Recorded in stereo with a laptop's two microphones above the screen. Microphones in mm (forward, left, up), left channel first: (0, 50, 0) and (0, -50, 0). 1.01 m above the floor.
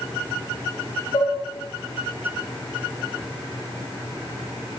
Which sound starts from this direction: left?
Dishes clattering, at 1.1 s.